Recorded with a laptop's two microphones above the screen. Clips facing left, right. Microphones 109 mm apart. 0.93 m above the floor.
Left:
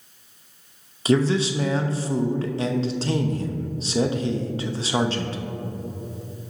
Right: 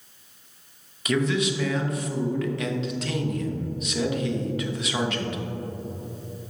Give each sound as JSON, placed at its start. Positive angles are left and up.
{"t": 1.1, "sound": "a man speaking", "side_deg": 30, "distance_m": 0.6}